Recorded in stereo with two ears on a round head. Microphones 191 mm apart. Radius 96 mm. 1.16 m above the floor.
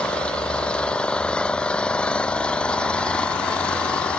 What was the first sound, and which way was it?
An engine running, 5° left (ahead or behind).